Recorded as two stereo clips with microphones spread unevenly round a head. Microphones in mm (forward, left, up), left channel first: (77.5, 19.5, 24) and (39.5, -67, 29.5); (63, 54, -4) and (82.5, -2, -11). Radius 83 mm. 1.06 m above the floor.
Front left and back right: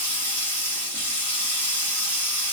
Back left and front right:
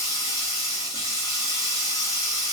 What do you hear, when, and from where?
0.0 s running water: 140° left, 1.7 m